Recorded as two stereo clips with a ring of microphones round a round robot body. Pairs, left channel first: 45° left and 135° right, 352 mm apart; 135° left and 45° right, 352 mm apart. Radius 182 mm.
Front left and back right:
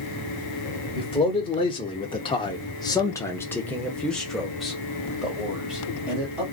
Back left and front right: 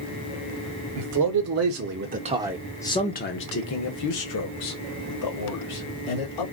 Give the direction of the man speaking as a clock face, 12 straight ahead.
1 o'clock.